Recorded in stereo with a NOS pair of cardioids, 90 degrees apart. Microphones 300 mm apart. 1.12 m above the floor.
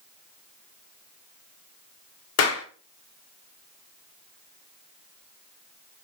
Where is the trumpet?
No trumpet in this recording.